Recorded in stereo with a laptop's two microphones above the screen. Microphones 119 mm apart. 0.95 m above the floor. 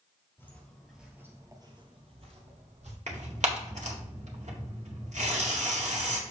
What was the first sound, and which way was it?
Footsteps, 15° left (ahead or behind).